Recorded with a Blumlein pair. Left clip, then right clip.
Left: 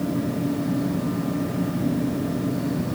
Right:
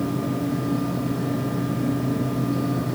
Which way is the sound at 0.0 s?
Straight ahead.